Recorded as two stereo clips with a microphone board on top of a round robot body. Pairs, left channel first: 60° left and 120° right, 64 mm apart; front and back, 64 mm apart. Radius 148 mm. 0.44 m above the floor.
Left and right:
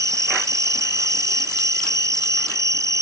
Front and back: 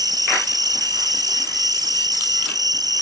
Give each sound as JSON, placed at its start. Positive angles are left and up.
{"t": 0.0, "sound": "an insect", "azimuth_deg": -160}